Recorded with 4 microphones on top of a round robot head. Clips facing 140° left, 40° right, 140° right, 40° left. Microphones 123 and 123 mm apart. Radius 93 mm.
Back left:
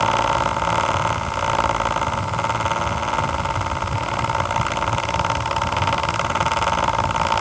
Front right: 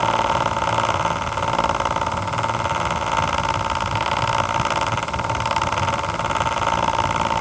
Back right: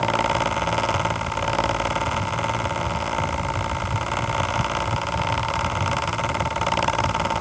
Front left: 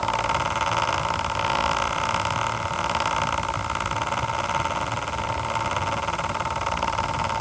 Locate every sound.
Only background noise.